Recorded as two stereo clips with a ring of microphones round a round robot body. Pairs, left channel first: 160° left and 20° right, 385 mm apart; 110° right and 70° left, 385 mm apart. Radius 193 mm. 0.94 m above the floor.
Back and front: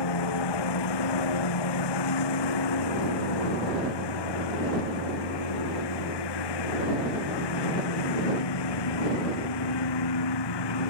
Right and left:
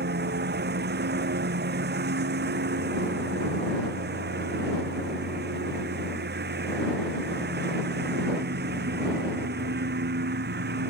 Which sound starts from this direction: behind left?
A lawn mower, at 0.0 s.